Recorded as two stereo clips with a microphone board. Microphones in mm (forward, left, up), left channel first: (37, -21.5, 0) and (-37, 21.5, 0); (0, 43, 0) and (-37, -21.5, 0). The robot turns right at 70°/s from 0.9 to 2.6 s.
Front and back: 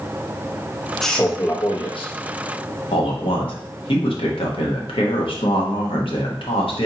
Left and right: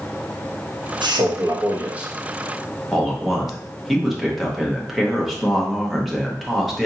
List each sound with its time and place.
1.0 s a man speaking: 115° right, 1.0 m; by 2.1 s 40° right, 1.0 m
2.9 s a man speaking: 30° right, 1.1 m